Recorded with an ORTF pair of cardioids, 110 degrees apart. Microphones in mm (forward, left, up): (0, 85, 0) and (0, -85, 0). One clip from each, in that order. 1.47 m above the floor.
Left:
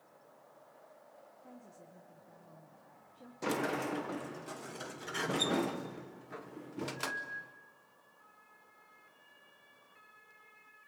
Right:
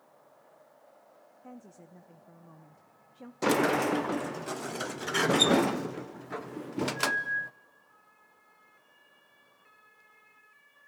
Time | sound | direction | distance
1.4 | a woman speaking | 40° right | 0.9 m
3.4 | a sliding door | 45° right | 0.7 m